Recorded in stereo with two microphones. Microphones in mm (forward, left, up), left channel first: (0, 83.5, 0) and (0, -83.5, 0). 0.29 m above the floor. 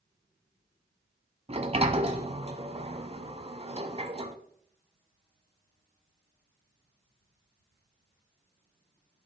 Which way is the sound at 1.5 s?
40° right (ahead or behind).